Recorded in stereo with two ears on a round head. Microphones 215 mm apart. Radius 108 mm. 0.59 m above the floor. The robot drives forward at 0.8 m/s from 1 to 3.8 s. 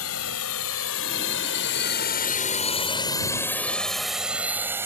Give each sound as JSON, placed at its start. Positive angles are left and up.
{"t": 0.0, "sound": "a drone", "side_deg": 65}